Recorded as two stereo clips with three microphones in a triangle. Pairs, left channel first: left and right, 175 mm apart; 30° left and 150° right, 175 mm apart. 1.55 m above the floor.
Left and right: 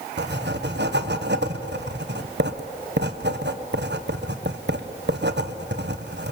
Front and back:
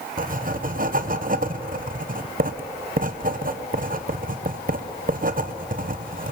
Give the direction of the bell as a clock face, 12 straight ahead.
I don't hear a bell.